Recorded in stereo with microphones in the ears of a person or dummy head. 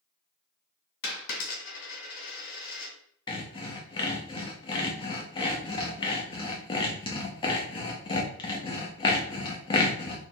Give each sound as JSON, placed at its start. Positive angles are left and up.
{"t": 1.0, "sound": "a dropped coin", "side_deg": 60, "distance_m": 1.7}
{"t": 3.3, "sound": "sawing", "side_deg": 25, "distance_m": 0.6}